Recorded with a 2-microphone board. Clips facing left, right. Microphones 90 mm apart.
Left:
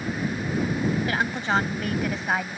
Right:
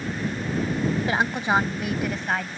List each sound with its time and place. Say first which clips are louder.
1.1 s a woman speaking: right 2 dB; 25° right (ahead or behind); by 2.6 s 10° left (ahead or behind)